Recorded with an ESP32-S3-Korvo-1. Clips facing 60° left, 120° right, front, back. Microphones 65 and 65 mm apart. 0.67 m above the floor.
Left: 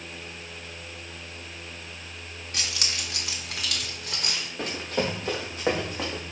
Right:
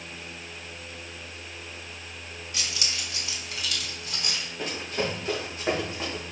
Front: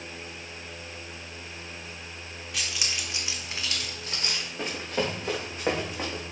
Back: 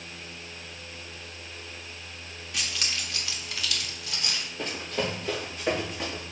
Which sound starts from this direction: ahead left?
Running footsteps, at 4.6 s.